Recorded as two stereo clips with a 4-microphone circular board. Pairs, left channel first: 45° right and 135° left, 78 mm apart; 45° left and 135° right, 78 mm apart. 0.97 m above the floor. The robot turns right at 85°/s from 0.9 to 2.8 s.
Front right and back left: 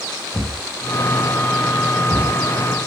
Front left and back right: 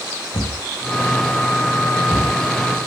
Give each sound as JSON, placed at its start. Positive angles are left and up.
{"t": 0.3, "sound": "a thud", "azimuth_deg": 20, "distance_m": 3.5}